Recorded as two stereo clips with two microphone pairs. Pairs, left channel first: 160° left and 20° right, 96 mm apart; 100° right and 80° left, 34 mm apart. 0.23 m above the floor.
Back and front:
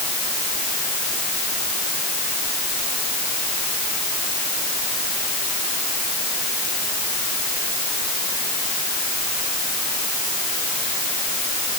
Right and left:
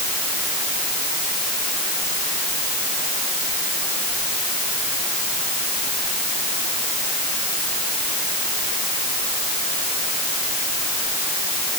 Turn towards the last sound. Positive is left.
No sound to turn to.